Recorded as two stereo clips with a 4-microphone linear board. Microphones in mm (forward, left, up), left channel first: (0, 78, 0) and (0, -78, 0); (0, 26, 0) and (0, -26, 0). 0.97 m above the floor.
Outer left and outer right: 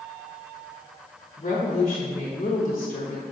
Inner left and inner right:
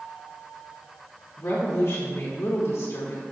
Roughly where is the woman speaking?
Left.